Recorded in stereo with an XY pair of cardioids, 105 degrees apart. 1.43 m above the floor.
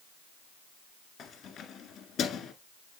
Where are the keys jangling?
70° left, 1.8 m.